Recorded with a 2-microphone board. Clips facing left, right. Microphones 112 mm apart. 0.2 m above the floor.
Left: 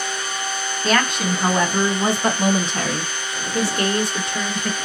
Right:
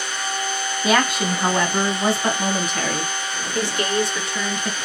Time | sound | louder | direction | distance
0.8 | a woman speaking | right 1 dB | 15° right (ahead or behind) | 1.2 m